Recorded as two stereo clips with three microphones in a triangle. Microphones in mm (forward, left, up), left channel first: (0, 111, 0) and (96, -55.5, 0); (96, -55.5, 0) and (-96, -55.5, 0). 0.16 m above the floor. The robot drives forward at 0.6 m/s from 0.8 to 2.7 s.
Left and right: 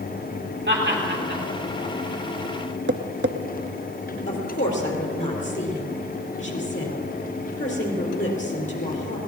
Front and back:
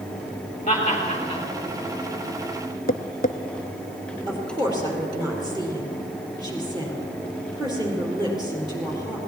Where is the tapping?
40° right, 0.6 m.